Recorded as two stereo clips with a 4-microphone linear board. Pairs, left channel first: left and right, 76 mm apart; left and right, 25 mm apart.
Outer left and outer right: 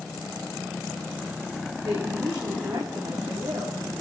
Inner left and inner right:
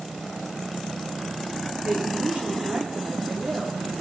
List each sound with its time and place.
1.8 s a woman speaking: 60° right (ahead or behind), 7.5 m